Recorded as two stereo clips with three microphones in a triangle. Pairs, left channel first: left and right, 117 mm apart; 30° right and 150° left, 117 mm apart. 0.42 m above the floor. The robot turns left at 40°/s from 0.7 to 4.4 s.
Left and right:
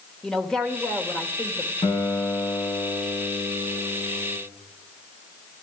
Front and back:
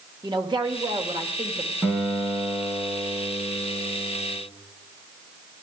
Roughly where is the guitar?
Ahead left.